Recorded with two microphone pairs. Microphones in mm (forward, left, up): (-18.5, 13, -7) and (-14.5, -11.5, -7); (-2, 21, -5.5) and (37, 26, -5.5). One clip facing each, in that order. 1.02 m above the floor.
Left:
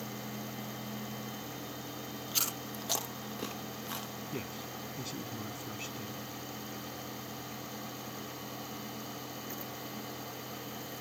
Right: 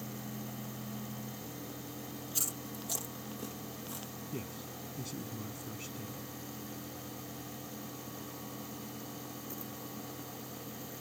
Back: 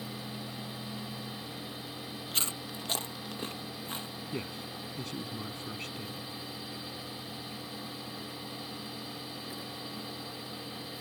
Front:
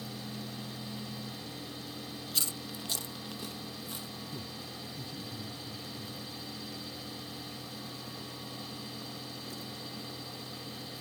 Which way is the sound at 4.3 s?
170° left.